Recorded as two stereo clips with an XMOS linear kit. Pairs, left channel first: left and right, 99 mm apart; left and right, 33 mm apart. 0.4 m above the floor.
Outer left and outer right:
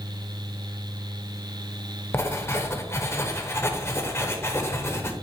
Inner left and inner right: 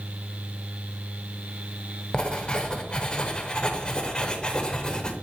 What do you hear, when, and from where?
2.1 s writing: 30° left (ahead or behind), 1.1 m